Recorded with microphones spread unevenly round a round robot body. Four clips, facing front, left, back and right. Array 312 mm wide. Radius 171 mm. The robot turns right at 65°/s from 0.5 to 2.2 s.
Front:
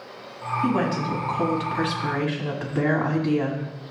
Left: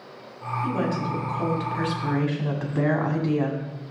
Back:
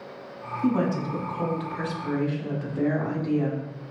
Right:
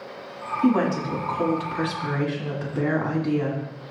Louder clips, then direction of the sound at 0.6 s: Right 6 dB, even; 65° right.